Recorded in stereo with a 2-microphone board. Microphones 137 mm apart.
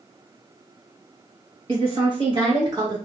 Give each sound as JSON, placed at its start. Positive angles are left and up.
{"t": 1.7, "sound": "a woman speaking", "side_deg": -45, "distance_m": 1.9}